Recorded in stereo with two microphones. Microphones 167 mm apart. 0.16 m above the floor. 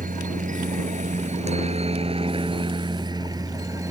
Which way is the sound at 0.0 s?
55° right (ahead or behind).